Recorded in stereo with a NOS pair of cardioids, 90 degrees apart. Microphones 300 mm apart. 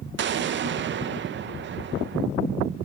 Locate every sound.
0.2 s an explosion: 40° right, 0.5 m